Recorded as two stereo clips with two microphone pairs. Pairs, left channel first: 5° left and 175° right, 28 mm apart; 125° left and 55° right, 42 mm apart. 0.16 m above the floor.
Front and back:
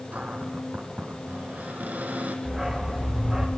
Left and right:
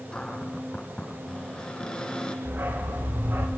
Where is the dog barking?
90° right, 5.5 m.